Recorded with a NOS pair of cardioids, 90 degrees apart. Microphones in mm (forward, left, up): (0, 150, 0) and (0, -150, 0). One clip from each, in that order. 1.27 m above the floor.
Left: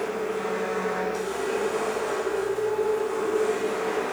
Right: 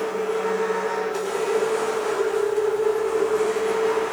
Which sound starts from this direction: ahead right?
A machine running, at 0.0 s.